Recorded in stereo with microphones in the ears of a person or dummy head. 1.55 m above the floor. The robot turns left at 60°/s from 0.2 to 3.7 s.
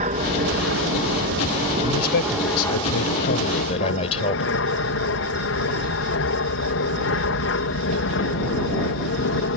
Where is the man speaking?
150° left; by 4.6 s 35° left.